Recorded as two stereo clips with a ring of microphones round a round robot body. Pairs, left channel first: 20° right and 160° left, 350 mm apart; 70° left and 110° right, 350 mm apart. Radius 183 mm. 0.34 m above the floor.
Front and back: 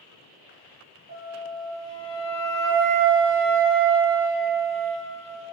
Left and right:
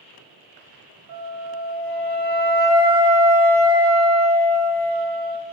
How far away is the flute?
About 1.8 m.